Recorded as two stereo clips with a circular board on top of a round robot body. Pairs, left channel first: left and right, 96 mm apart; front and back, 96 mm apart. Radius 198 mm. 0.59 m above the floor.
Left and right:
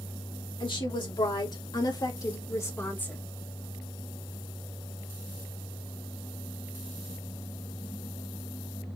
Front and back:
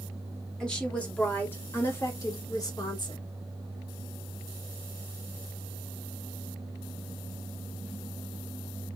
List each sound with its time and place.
0.6 s a woman speaking: 80° left, 2.5 m; by 3.2 s 20° left, 1.5 m